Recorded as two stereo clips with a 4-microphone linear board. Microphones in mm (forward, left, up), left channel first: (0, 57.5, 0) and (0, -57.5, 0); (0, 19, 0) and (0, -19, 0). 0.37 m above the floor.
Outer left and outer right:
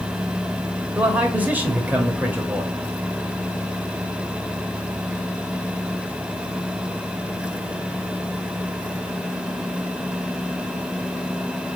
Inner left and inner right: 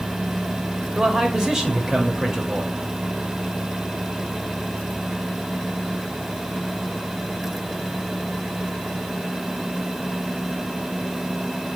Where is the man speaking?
15° right (ahead or behind), 1.2 m.